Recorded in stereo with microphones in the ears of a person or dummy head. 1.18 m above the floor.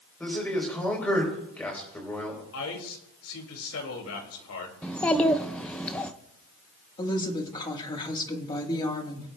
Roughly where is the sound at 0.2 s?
Centre.